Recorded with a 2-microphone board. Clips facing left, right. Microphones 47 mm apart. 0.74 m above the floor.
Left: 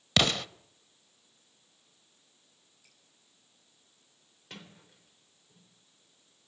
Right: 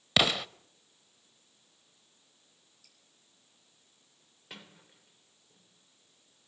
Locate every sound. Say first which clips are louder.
0.2 s an explosion: even; 5° right (ahead or behind), 0.5 m
2.8 s dripping: left 3 dB; 20° left (ahead or behind), 8.5 m
4.5 s a sliding door: left 1 dB; 10° right (ahead or behind), 3.5 m